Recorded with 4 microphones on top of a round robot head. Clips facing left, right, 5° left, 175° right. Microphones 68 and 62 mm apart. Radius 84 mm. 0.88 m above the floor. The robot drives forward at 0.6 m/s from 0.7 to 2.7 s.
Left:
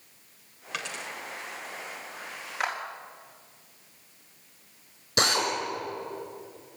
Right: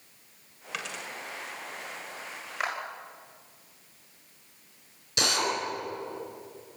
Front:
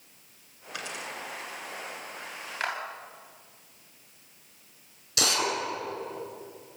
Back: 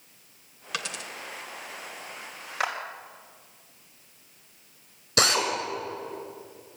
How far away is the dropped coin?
About 1.0 m.